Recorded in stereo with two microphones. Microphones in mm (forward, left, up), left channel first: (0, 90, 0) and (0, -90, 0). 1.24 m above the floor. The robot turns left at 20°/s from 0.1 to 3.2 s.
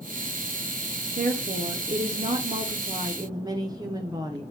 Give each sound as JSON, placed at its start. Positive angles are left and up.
{"t": 1.2, "sound": "a woman speaking", "azimuth_deg": -115, "distance_m": 0.6}